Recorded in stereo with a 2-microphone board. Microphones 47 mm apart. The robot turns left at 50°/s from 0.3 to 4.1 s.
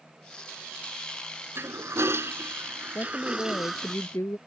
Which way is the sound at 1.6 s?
65° right.